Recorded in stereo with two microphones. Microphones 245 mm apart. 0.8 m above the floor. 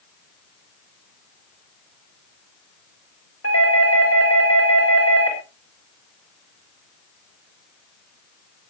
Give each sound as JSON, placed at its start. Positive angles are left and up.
{"t": 3.4, "sound": "a doorbell", "side_deg": 70, "distance_m": 7.5}